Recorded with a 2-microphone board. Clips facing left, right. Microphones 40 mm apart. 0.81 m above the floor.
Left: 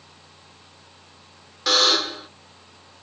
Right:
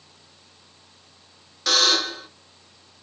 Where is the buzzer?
10° left (ahead or behind), 1.0 m.